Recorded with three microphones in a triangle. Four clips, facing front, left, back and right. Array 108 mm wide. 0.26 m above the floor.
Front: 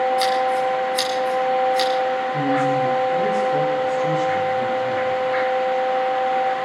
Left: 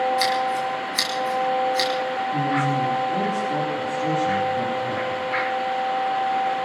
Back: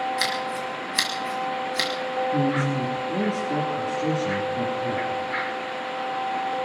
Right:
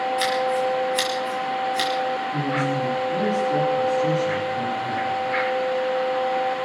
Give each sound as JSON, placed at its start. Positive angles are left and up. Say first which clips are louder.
{"t": 0.2, "sound": "scissors", "louder": "even, front 9 dB", "azimuth_deg": -170, "distance_m": 4.5}
{"t": 2.3, "sound": "a man speaking", "louder": "left 2 dB, front 4 dB", "azimuth_deg": 175, "distance_m": 7.0}